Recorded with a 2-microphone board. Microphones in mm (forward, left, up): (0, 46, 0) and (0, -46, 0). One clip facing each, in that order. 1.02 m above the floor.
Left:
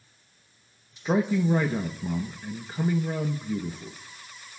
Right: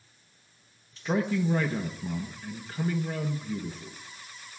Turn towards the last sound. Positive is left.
turn(degrees=15)  # may be behind; listen again after turning